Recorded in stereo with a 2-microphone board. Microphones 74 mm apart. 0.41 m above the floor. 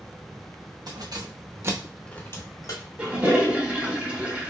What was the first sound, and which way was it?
Keys jangling, 65° right (ahead or behind).